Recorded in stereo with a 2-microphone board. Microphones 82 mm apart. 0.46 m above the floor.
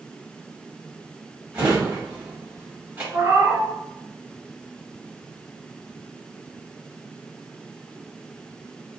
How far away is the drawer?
About 1.4 m.